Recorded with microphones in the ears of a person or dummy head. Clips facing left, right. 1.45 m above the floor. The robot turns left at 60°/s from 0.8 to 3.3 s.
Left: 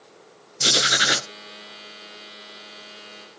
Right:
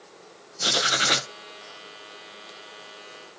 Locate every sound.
0.6 s writing: 30° left (ahead or behind), 0.6 m; by 1.3 s centre (ahead or behind), 0.6 m